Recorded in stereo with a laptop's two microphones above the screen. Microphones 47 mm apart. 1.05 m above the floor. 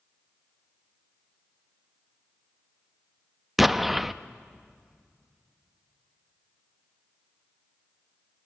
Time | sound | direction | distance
3.6 | an explosion | 5° right (ahead or behind) | 0.5 m